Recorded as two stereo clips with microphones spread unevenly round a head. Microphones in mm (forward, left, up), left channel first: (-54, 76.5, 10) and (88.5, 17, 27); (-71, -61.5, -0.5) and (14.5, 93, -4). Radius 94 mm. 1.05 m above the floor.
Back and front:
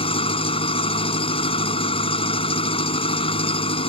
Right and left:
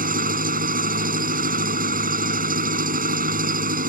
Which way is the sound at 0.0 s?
100° left.